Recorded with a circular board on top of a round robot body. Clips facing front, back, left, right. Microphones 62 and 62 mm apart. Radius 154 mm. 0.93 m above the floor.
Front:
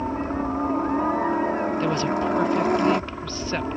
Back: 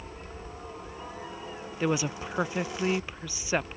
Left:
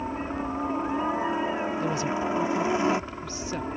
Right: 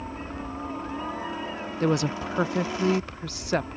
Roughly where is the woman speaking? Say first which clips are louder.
Front 6 dB, right 2 dB; right.